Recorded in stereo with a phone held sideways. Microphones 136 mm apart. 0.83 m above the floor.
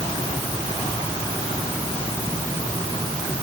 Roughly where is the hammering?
No hammering in this recording.